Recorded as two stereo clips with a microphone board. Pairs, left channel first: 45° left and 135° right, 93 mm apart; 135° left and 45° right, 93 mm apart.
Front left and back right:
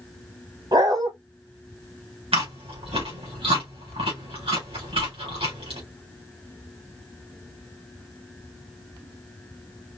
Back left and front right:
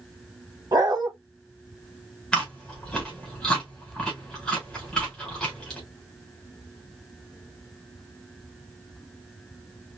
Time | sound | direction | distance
0.7 | a dog barking | 95° right | 2.5 m
2.3 | chewing | 145° right | 4.5 m